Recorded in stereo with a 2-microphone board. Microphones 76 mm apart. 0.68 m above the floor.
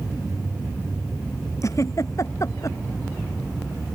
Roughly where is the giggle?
Left.